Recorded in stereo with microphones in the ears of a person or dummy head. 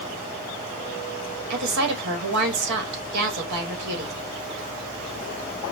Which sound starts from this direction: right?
A woman speaking, at 1.5 s.